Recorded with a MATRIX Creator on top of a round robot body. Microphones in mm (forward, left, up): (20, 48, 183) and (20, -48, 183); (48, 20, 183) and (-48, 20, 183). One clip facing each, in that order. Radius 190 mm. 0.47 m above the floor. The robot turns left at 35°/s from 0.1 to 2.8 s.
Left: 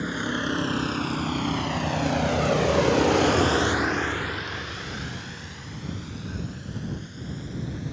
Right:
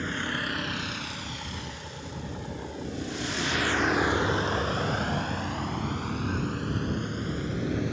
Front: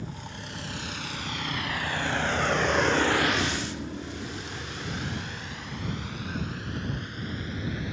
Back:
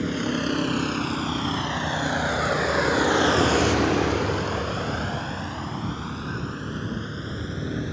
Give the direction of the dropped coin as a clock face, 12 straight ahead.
I don't hear a dropped coin.